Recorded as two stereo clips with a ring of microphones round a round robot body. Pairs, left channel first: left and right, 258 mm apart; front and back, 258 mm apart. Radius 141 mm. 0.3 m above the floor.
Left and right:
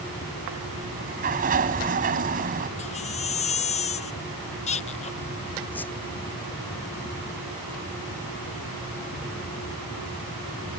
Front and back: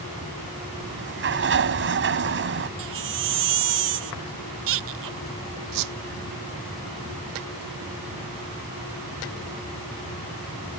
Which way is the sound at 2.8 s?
160° left.